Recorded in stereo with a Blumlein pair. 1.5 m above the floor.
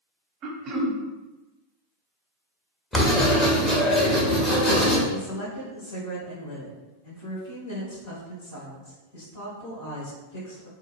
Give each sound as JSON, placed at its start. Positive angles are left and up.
{"t": 0.4, "sound": "throat clearing", "azimuth_deg": -30, "distance_m": 0.6}
{"t": 2.9, "sound": "writing", "azimuth_deg": 15, "distance_m": 0.9}
{"t": 5.1, "sound": "a woman speaking", "azimuth_deg": 50, "distance_m": 1.7}